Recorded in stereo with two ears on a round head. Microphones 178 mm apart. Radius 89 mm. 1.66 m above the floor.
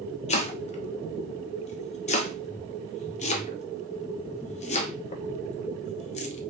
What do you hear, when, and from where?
0.3 s chopping: 35° left (ahead or behind), 0.6 m